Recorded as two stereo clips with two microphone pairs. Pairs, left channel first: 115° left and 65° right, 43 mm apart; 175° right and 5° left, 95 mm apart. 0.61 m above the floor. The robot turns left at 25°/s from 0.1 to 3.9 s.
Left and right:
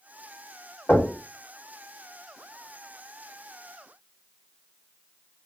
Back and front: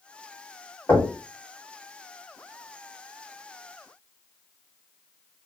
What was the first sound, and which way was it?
Knocking, 120° left.